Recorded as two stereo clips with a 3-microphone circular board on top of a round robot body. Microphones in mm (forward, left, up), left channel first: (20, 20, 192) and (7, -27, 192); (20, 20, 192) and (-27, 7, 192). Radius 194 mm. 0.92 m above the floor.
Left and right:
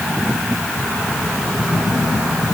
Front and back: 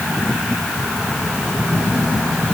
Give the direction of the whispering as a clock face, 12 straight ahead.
No whispering in this recording.